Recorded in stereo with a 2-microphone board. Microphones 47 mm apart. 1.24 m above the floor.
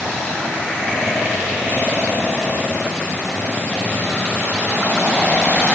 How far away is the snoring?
I don't hear snoring.